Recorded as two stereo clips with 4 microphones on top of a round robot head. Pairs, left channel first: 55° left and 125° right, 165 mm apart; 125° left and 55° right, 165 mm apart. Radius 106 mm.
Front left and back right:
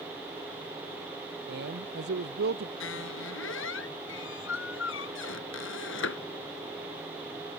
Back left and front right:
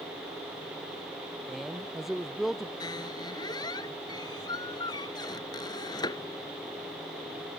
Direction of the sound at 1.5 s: 145° right.